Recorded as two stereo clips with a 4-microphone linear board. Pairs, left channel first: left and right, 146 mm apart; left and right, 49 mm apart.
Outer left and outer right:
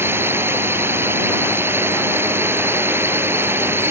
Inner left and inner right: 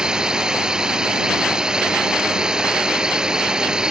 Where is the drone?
15° right (ahead or behind).